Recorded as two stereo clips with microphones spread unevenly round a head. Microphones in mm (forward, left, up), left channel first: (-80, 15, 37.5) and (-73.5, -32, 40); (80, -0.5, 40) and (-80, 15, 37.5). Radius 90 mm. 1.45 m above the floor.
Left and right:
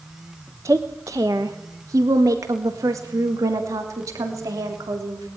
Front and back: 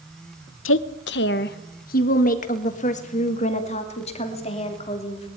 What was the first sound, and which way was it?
A woman speaking, 15° right.